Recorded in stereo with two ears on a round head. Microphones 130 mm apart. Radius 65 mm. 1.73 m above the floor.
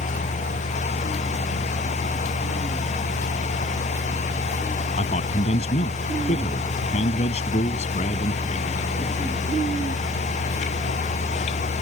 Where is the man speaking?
50° left (ahead or behind).